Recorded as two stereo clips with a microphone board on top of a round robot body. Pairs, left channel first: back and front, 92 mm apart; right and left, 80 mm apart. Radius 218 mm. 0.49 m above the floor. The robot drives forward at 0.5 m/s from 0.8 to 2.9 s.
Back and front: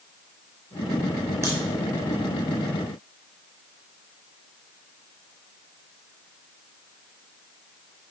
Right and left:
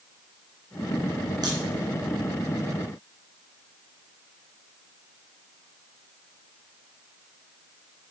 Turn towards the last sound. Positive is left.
turn(degrees=80)